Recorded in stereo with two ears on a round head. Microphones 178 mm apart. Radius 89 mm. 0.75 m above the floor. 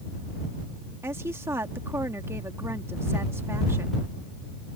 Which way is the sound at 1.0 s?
15° right (ahead or behind).